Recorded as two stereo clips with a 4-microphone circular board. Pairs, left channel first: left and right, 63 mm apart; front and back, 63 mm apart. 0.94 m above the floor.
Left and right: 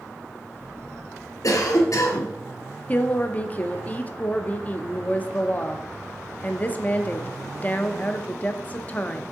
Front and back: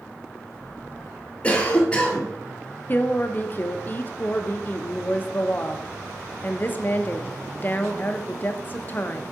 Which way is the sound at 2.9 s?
40° left.